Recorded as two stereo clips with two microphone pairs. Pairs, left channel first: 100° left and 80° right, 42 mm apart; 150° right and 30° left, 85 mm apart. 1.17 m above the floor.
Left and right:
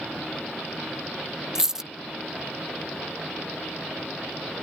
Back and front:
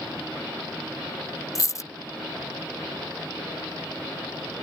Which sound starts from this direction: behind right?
A dropped coin, at 1.6 s.